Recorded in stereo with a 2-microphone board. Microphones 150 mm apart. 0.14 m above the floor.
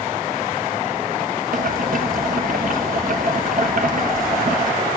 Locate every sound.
1.5 s boiling: 65° right (ahead or behind), 1.0 m